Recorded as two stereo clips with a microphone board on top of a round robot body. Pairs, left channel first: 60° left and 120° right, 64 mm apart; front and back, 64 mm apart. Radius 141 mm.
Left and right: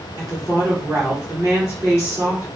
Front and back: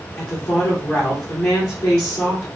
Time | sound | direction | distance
0.2 | a woman speaking | 60° right | 2 m